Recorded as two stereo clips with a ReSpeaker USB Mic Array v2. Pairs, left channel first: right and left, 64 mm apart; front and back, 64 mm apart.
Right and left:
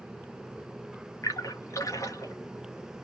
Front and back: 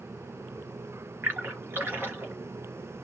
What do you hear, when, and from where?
1.2 s a splash: 125° right, 3 m